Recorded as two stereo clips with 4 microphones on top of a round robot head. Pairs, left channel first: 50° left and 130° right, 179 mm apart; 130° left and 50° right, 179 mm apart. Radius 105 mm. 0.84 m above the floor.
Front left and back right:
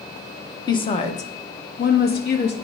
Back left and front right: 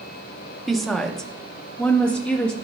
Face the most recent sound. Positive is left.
turn(degrees=50)